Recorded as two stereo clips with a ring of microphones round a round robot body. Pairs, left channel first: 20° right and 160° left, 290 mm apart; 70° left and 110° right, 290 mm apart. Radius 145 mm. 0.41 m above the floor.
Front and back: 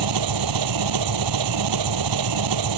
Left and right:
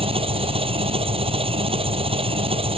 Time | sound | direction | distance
0.0 | an engine running | 175° left | ?